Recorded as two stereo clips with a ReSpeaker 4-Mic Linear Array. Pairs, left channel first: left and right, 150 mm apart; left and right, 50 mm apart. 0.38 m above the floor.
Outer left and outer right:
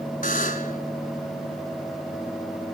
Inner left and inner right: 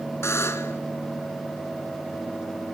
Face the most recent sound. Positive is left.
turn(degrees=65)  # may be behind; listen again after turning